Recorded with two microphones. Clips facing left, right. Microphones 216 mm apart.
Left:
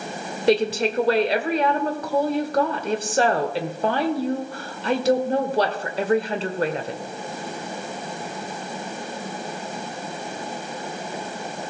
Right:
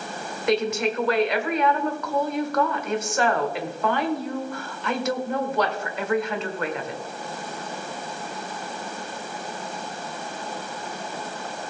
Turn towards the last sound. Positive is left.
turn(degrees=35)  # may be behind; listen again after turning